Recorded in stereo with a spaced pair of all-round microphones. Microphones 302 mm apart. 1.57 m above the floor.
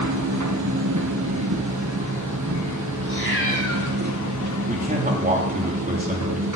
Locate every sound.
0.0 s a machine running: 70° right (ahead or behind), 1.3 m
3.0 s a cat meowing: 40° left (ahead or behind), 2.5 m
4.7 s a man speaking: 25° right (ahead or behind), 3 m